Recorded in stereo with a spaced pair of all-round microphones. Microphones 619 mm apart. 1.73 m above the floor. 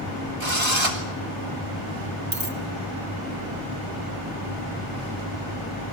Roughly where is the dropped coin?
Right.